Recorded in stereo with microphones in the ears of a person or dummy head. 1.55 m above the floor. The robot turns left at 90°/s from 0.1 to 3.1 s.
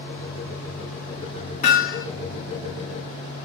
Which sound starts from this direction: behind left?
Hammering, at 1.6 s.